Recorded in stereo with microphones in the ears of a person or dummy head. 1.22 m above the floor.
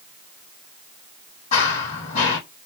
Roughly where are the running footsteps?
Left.